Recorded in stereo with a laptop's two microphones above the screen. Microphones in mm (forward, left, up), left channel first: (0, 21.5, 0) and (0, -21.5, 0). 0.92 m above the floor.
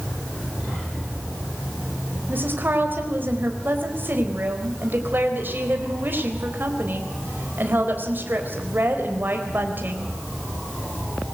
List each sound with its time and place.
2.3 s a woman speaking: 50° right (ahead or behind), 4 m